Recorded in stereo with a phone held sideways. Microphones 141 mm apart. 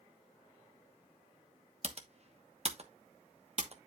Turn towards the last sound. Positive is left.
turn(degrees=-50)  # may be behind; listen again after turning